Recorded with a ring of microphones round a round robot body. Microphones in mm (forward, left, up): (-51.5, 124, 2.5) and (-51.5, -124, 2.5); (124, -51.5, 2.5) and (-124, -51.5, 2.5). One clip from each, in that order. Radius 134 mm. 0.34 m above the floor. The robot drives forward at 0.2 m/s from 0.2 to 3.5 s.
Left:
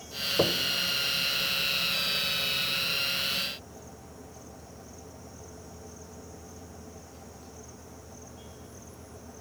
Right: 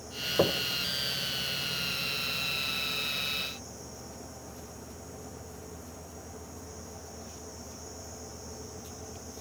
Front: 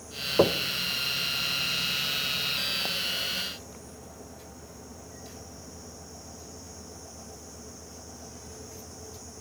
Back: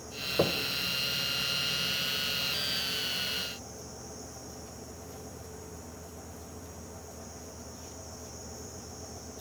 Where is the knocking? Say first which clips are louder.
Even, front 6 dB; 10° right, 0.5 m; by 0.6 s 15° right, 0.5 m.